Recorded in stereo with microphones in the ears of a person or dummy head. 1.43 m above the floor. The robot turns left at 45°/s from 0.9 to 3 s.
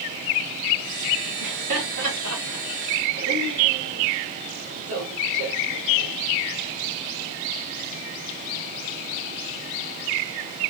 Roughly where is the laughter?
Right.